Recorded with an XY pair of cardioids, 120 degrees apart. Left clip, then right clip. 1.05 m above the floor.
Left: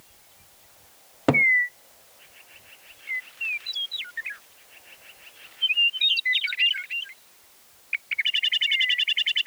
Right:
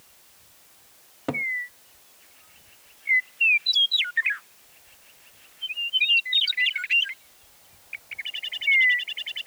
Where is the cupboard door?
50° left.